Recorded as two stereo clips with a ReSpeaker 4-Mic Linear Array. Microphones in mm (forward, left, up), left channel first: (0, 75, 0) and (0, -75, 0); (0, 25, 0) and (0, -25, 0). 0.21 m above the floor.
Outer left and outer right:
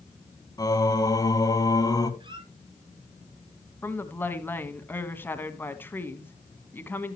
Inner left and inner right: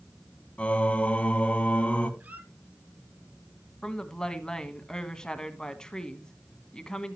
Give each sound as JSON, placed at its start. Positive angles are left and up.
{"t": 0.6, "sound": "singing", "side_deg": 25, "distance_m": 1.4}
{"t": 2.2, "sound": "a squeak", "side_deg": -30, "distance_m": 1.8}
{"t": 3.8, "sound": "a woman speaking", "side_deg": 15, "distance_m": 1.5}